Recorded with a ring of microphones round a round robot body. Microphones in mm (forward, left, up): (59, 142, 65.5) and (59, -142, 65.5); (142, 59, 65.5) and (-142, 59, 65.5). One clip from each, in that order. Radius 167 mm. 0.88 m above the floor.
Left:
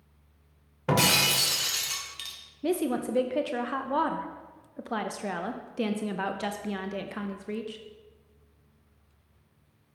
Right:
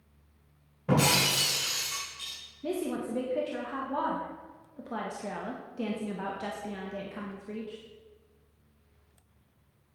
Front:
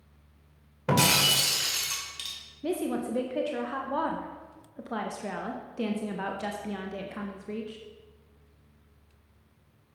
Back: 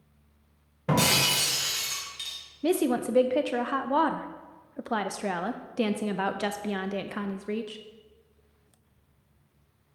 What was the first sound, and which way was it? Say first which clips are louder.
Breaking glass: left 2 dB, front 1 dB; 65° left.